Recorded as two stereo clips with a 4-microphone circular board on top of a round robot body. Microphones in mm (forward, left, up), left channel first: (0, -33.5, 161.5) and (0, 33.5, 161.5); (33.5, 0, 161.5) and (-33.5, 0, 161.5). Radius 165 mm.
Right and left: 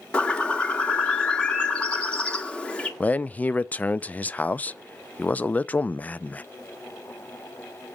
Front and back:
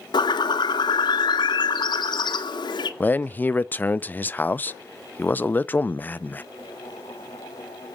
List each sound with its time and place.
0.1 s a bird: 10° right, 1.1 m
3.0 s a man speaking: 40° right, 0.6 m